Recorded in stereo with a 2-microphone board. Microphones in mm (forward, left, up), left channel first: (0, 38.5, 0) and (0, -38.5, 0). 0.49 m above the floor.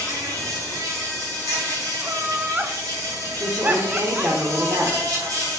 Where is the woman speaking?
35° right (ahead or behind), 1.3 m.